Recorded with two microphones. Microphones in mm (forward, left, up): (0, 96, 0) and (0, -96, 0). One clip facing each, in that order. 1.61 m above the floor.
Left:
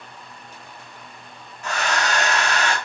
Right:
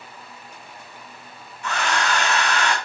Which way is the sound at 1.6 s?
40° left (ahead or behind).